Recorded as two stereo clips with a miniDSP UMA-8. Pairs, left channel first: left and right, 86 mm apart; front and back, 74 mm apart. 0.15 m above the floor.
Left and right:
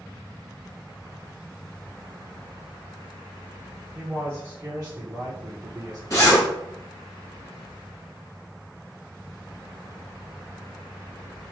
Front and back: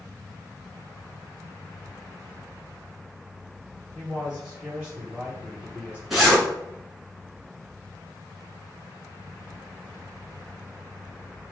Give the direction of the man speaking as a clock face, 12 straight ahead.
3 o'clock.